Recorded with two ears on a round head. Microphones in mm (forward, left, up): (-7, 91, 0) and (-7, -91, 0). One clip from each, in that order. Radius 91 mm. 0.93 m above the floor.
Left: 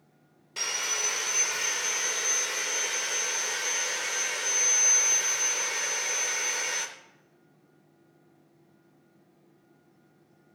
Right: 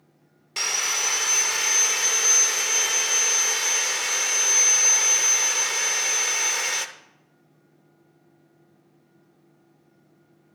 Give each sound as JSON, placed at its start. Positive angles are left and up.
{"t": 0.6, "sound": "sawing", "side_deg": -25, "distance_m": 0.6}